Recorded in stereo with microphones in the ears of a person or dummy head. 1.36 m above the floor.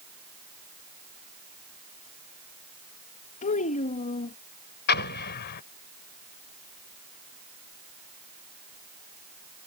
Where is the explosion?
60° left (ahead or behind).